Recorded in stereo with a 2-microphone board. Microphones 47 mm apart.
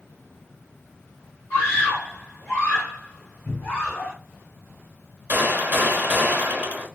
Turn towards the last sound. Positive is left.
turn(degrees=-35)  # may be behind; listen again after turning